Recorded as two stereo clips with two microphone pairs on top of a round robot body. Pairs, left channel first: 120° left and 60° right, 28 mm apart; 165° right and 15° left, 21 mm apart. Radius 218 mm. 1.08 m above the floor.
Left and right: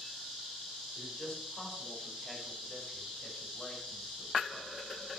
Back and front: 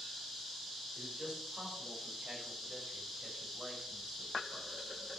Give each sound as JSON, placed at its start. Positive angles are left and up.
{"t": 0.9, "sound": "a man speaking", "azimuth_deg": 50, "distance_m": 4.5}